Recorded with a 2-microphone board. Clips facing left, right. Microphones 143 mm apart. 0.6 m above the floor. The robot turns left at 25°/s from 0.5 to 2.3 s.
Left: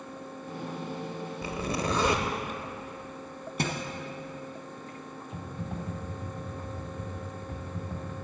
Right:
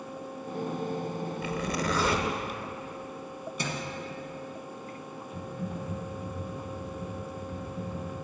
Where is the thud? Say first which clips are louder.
Left 4 dB; 60° left (ahead or behind), 1.4 m.